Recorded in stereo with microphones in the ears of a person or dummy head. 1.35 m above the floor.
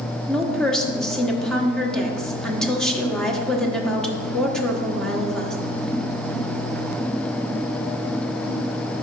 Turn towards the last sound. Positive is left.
turn(degrees=5)  # may be behind; listen again after turning